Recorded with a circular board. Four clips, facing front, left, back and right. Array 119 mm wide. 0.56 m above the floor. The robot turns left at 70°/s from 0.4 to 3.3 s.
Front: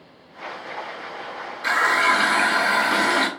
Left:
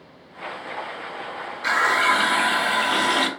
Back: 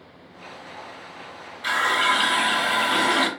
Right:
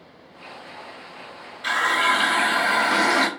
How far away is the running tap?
About 0.6 m.